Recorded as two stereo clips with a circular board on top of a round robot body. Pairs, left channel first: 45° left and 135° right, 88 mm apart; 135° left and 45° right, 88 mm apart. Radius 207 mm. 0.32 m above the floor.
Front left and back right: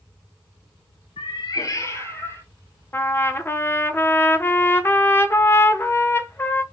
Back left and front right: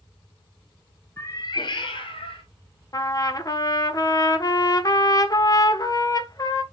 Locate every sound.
1.2 s a cat meowing: 70° left, 0.6 m; by 2.4 s 110° left, 1.9 m
2.9 s a trumpet: 105° left, 1.7 m